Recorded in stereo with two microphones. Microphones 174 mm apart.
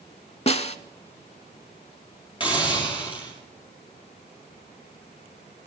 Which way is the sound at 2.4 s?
30° left (ahead or behind).